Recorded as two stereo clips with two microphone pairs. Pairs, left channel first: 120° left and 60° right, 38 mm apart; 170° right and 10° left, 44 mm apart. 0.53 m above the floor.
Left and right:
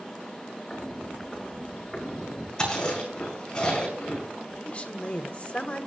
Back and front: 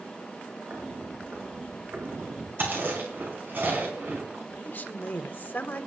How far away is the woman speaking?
About 1.3 m.